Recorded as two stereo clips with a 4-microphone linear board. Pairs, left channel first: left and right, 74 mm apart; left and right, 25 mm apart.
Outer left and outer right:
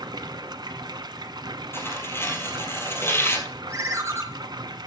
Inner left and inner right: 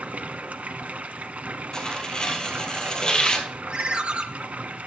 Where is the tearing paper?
30° left (ahead or behind), 2 m.